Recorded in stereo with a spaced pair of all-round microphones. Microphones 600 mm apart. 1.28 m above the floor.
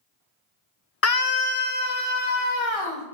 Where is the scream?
25° left (ahead or behind), 0.6 m; by 3.0 s 65° left (ahead or behind), 3.5 m.